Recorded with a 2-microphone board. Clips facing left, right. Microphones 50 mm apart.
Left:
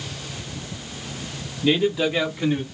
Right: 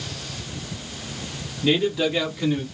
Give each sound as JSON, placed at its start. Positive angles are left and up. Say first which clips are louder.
{"t": 1.6, "sound": "a man speaking", "louder": "left 1 dB", "side_deg": 0, "distance_m": 1.3}